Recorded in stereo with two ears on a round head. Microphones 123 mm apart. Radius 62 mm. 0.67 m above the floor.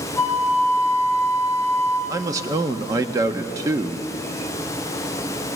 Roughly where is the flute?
Left.